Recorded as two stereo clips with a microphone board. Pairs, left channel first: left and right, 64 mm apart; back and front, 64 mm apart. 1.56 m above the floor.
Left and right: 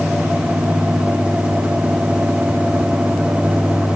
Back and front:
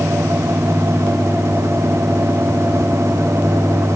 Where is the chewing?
I don't hear chewing.